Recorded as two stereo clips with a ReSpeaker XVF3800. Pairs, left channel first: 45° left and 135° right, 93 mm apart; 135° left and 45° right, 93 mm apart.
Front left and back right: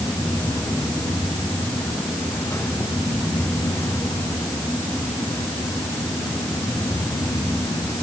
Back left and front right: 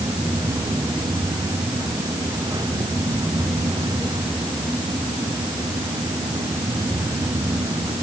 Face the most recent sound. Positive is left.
No sound to turn to.